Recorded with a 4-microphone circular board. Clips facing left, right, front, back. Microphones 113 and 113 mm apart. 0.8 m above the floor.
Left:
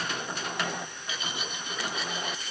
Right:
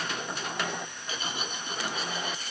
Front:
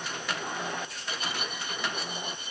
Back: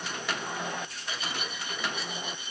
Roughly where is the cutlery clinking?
Ahead right.